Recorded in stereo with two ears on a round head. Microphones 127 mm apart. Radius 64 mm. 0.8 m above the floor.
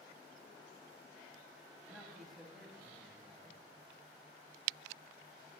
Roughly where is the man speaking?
Centre.